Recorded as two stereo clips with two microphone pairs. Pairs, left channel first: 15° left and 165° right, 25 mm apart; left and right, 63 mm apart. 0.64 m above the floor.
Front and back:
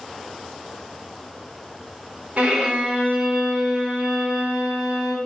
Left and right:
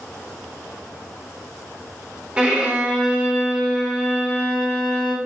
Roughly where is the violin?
Behind.